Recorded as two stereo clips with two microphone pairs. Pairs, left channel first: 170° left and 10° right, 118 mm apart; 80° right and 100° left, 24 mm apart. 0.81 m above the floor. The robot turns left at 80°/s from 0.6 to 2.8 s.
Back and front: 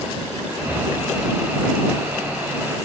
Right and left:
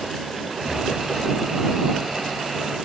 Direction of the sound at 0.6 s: 10° right.